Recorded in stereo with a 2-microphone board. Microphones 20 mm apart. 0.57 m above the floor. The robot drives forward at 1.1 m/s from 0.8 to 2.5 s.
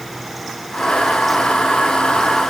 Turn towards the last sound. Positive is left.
No sound to turn to.